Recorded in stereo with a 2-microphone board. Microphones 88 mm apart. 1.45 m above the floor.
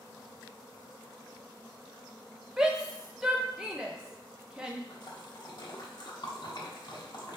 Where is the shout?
10° right (ahead or behind), 0.6 m.